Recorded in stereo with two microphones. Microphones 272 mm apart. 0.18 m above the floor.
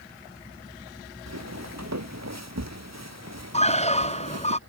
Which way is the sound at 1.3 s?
80° right.